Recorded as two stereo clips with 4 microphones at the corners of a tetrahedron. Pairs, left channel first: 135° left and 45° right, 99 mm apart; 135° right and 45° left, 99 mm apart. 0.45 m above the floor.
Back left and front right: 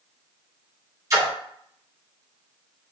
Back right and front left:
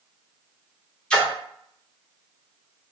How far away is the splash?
About 1.3 m.